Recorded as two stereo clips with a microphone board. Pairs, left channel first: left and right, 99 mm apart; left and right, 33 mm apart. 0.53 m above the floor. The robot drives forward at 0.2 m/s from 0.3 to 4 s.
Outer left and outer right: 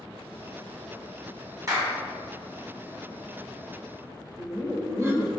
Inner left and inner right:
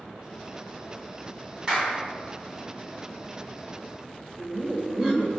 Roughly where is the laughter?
Right.